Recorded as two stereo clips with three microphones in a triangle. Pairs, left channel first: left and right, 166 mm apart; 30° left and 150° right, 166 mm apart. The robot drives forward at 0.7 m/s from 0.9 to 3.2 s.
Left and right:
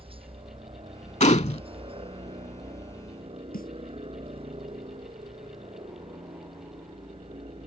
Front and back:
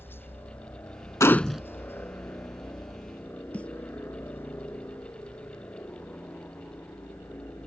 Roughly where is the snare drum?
Left.